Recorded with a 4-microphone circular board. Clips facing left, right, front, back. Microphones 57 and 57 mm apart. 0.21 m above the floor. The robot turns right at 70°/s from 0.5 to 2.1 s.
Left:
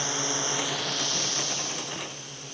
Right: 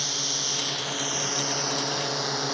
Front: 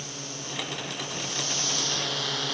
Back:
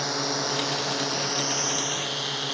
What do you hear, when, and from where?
0.0 s a drone: 160° left; by 2.5 s 90° right